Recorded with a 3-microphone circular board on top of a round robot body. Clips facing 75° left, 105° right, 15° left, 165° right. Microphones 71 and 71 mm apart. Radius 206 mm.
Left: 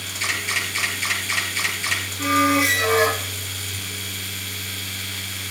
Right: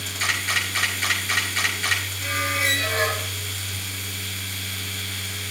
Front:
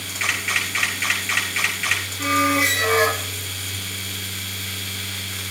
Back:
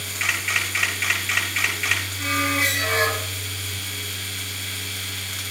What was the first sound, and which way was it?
A camera shutter, 75° right.